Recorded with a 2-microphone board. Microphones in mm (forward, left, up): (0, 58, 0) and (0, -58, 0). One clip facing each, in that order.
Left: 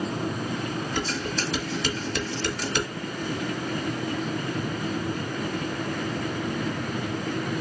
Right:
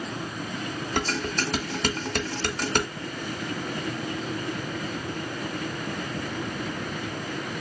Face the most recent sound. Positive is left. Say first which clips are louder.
# right 5 dB
turn(degrees=-50)  # may be behind; listen again after turning